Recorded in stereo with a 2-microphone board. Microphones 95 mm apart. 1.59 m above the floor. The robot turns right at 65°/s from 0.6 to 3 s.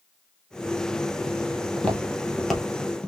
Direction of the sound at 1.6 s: 25° left (ahead or behind).